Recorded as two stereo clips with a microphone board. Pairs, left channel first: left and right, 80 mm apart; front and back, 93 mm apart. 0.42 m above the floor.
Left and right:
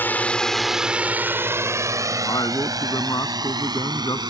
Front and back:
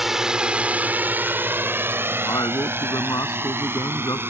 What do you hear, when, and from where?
0.0 s a drone: 100° left; by 4.3 s 115° right
2.2 s a man speaking: 50° left